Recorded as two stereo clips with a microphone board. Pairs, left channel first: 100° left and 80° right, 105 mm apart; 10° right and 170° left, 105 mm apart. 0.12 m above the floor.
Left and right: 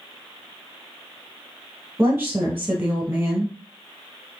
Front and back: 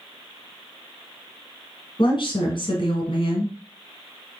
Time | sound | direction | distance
2.0 | a woman speaking | 15° right | 2 m